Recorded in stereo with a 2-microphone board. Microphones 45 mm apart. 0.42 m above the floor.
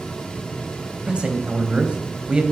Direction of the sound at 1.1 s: 20° right (ahead or behind).